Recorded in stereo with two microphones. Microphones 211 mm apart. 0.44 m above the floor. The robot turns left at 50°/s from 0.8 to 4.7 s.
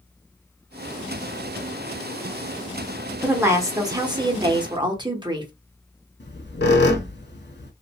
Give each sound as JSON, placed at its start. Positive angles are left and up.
{"t": 3.2, "sound": "a woman speaking", "side_deg": -10, "distance_m": 0.8}
{"t": 6.2, "sound": "a squeak", "side_deg": 60, "distance_m": 0.6}